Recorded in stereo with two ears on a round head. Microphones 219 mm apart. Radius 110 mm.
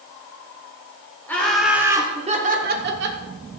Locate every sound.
1.3 s laughter: 10° left (ahead or behind), 1.9 m; by 3.2 s 50° right (ahead or behind), 2 m